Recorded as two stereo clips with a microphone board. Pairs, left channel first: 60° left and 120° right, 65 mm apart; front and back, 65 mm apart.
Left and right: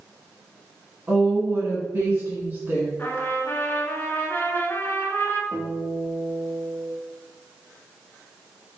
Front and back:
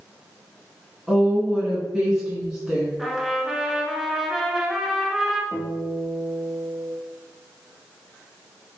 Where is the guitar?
35° right, 1.7 m.